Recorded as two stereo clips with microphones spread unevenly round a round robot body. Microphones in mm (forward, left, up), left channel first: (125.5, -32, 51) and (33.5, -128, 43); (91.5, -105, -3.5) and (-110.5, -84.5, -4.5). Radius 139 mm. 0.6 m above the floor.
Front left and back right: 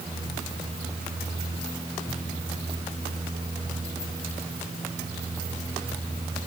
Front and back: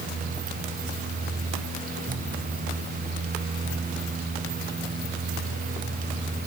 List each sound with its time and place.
Only background noise.